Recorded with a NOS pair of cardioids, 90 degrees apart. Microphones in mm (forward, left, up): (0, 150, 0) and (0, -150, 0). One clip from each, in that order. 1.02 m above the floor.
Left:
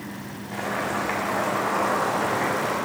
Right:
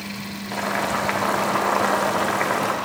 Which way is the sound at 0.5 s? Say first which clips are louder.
Right 4 dB; 50° right.